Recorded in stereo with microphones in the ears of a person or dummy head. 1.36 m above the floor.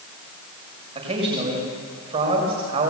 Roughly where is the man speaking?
Right.